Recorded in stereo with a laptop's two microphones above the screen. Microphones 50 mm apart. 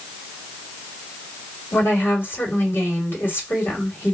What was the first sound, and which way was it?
A woman speaking, 40° left (ahead or behind).